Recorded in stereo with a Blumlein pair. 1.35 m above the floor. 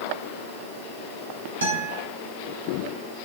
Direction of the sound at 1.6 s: 65° right.